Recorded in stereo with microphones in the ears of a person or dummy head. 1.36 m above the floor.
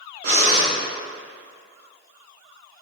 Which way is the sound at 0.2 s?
45° right (ahead or behind).